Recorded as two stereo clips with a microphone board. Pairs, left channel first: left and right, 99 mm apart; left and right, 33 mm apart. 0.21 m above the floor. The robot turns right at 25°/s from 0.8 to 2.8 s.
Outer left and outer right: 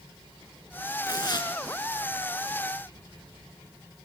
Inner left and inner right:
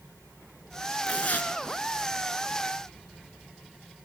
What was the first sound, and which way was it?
Tearing paper, 40° left (ahead or behind).